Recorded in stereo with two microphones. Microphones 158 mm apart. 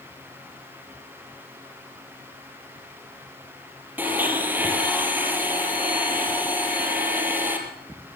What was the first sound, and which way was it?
A blender, 10° right (ahead or behind).